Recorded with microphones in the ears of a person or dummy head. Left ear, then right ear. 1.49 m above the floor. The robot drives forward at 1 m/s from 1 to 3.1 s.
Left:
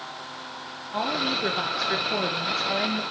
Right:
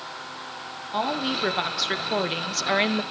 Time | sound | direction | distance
0.9 | a woman speaking | 20° right (ahead or behind) | 2 m